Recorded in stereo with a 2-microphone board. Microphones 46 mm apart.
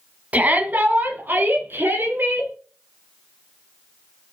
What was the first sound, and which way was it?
A shout, 35° right (ahead or behind).